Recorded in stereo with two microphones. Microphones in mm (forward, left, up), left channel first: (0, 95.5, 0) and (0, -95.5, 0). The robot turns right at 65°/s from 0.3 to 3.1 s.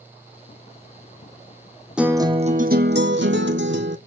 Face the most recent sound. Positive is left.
turn(degrees=-100)